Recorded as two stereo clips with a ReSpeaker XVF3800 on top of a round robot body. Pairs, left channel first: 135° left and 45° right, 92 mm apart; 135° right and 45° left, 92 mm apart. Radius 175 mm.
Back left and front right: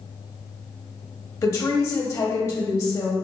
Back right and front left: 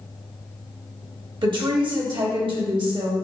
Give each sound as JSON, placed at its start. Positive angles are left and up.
{"t": 1.4, "sound": "a woman speaking", "azimuth_deg": 75, "distance_m": 0.8}